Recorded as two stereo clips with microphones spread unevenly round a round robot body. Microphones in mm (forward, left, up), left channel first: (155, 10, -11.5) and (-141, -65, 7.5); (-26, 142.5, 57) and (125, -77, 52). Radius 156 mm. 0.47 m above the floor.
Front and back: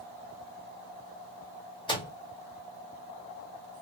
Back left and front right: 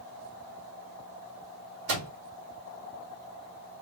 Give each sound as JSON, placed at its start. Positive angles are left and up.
{"t": 1.9, "sound": "a microwave", "azimuth_deg": -55, "distance_m": 1.4}